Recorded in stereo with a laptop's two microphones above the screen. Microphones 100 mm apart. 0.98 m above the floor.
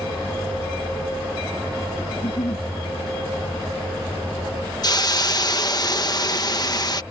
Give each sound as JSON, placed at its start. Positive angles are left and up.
{"t": 2.1, "sound": "a giggle", "side_deg": 65}
{"t": 4.8, "sound": "a hiss", "side_deg": 40}